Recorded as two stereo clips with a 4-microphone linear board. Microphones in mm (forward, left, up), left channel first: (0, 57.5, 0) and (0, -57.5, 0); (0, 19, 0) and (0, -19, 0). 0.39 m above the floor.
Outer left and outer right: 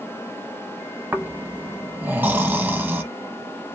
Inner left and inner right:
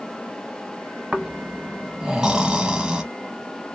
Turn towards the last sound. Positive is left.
turn(degrees=-15)  # may be behind; listen again after turning